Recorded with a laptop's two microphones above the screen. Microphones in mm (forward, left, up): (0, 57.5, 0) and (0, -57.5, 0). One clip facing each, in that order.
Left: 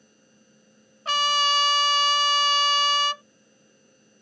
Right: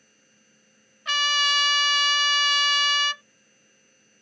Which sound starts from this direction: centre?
A machine running, at 0.0 s.